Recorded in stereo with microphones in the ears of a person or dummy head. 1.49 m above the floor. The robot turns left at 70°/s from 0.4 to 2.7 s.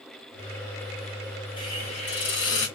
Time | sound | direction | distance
1.6 | a hiss | 155° left | 1.2 m